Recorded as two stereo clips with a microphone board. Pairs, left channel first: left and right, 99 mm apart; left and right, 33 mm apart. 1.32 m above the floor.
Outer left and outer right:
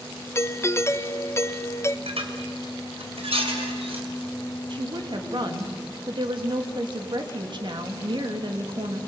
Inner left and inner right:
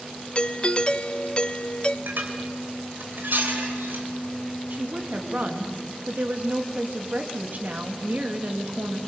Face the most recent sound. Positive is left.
turn(degrees=-55)  # may be behind; listen again after turning